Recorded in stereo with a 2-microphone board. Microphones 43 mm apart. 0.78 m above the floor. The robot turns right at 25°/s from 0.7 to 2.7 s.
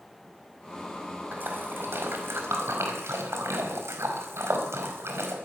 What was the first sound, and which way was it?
A splash, 50° right (ahead or behind).